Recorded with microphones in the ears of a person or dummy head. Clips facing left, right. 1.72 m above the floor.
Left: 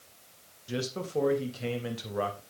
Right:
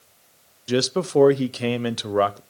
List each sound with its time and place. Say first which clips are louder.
0.7 s a man speaking: right 12 dB; 70° right (ahead or behind), 0.7 m